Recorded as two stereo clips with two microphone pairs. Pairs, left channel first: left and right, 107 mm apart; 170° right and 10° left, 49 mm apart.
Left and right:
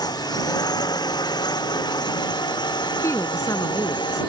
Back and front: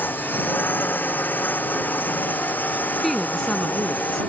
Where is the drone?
140° left.